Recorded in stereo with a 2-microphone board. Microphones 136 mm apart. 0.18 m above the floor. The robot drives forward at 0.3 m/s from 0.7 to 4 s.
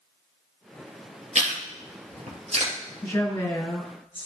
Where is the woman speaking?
15° left (ahead or behind), 2 m; by 4.3 s 10° left (ahead or behind), 2.5 m.